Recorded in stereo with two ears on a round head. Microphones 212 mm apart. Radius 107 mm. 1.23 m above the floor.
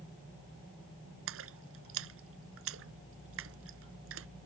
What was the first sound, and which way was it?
A splash, 65° right (ahead or behind).